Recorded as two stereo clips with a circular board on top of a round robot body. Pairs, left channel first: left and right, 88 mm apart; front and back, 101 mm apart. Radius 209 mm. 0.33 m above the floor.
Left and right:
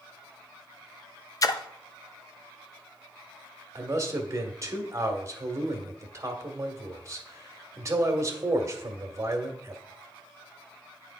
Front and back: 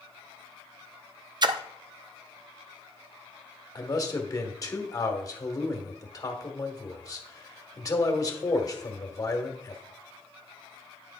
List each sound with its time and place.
1.4 s a splash: 135° left, 0.5 m
3.8 s a man speaking: 45° right, 1.5 m